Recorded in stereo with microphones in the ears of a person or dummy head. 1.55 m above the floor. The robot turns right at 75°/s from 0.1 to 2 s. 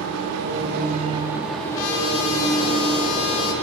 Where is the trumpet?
80° left, 1.1 m; by 3.5 s 75° left (ahead or behind), 1.1 m.